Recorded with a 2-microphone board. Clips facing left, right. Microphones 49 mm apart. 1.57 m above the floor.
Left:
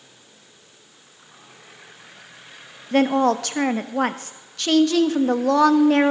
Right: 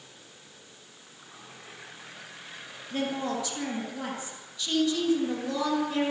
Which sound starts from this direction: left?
A woman speaking, at 2.9 s.